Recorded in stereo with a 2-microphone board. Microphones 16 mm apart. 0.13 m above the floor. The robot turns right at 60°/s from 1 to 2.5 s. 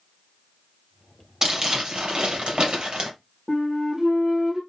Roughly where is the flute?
Right.